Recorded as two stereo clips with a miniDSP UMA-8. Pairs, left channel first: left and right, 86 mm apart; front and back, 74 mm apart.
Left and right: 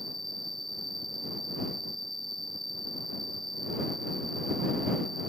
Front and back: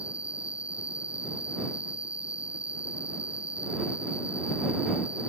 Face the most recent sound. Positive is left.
turn(degrees=105)